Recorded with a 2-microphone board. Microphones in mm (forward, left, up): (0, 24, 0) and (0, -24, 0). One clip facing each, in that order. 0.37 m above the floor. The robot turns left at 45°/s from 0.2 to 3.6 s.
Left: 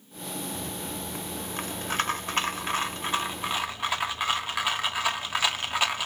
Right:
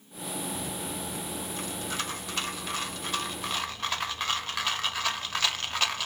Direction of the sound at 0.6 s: 155° left.